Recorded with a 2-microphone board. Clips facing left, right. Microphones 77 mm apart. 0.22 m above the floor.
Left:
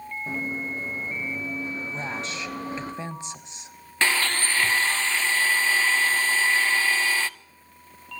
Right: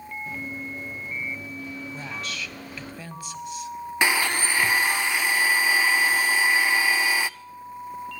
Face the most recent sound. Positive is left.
turn(degrees=-15)  # may be behind; listen again after turning